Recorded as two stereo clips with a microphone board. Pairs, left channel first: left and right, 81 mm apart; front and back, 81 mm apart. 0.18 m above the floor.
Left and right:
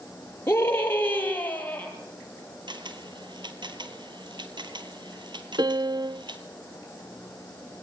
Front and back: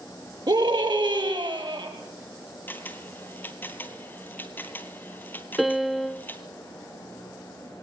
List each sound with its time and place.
0.5 s a scream: 150° left, 4 m; by 1.9 s 160° left, 4.5 m
2.7 s a camera shutter: 65° right, 1.3 m
5.6 s a piano: 90° right, 0.7 m